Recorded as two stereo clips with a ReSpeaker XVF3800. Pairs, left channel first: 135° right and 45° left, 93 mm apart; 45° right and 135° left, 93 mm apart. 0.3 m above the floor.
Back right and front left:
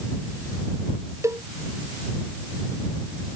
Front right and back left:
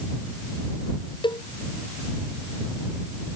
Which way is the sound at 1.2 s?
15° right.